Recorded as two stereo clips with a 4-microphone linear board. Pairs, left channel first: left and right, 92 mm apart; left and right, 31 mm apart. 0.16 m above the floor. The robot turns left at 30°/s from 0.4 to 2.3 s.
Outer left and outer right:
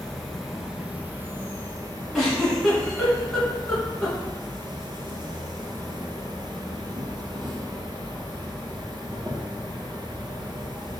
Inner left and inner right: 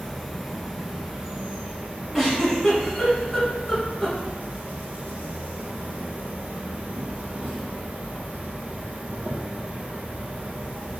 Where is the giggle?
Centre (ahead or behind), 1.7 m; by 4.2 s 5° left (ahead or behind), 1.7 m.